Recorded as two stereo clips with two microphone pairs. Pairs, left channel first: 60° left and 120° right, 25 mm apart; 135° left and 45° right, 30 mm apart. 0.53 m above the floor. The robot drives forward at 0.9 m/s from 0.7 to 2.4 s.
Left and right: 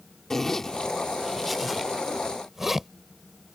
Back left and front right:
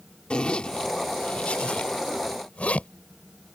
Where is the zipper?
120° left; by 2.9 s 160° left.